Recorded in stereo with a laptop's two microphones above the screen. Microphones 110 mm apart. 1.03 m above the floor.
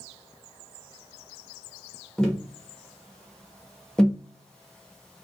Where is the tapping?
5° left (ahead or behind), 0.6 m.